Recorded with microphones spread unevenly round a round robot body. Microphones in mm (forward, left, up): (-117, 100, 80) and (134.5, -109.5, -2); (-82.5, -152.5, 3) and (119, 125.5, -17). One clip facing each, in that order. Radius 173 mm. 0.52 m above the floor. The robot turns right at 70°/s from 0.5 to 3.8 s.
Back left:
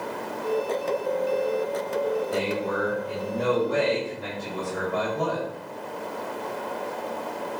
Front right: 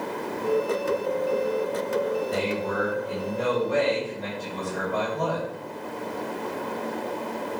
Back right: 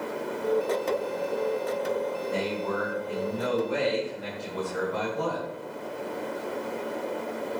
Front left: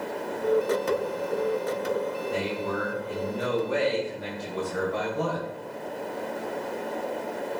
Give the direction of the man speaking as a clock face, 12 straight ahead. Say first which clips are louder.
Even, even; 1 o'clock.